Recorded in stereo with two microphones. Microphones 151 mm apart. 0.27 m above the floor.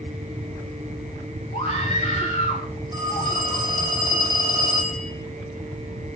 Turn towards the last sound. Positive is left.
turn(degrees=-25)  # may be behind; listen again after turning